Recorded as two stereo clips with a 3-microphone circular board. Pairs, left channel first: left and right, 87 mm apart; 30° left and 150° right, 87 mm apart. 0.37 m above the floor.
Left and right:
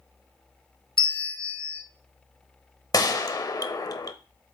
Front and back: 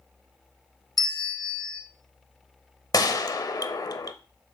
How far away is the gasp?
No gasp in this recording.